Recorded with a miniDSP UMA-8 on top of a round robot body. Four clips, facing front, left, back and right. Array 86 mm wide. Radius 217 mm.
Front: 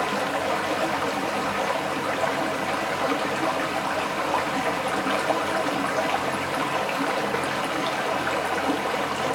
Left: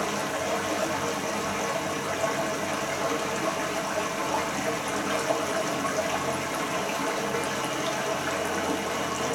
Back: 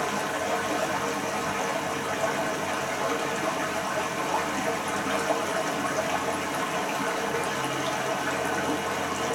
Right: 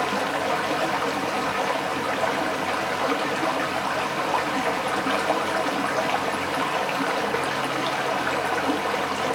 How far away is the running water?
About 0.8 m.